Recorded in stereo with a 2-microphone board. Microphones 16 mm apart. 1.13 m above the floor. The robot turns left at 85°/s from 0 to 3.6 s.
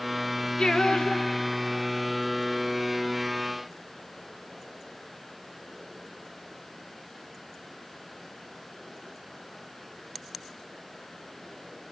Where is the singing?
95° left, 1.3 m; by 2.1 s 30° right, 1.3 m.